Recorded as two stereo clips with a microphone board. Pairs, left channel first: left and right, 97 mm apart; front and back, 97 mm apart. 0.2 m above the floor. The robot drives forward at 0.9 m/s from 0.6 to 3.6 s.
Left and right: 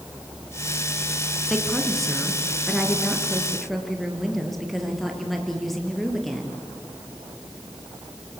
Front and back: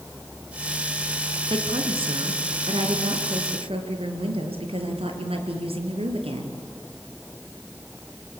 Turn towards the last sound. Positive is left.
turn(degrees=180)